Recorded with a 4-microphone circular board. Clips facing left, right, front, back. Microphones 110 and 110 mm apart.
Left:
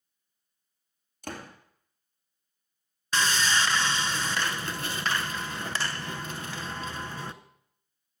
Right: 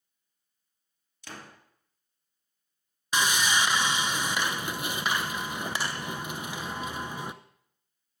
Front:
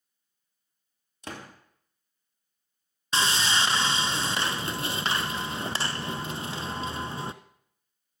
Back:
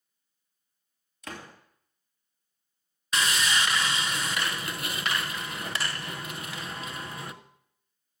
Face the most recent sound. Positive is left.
turn(degrees=-25)